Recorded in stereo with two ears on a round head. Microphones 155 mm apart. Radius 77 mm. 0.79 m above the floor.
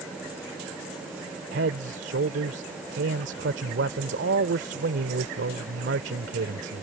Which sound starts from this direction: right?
A man speaking, at 1.5 s.